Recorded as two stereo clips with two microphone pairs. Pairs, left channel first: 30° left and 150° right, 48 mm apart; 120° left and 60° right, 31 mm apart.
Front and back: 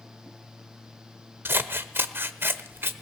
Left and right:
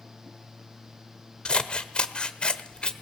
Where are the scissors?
Straight behind, 1.1 m.